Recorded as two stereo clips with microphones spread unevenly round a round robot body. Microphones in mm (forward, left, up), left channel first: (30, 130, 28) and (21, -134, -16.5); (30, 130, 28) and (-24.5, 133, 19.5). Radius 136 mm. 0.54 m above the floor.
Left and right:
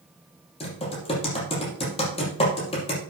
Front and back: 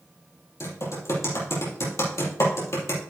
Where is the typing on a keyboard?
20° left, 5.5 m.